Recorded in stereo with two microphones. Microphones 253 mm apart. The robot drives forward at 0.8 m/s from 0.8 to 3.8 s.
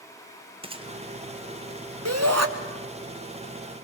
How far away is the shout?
About 2.5 m.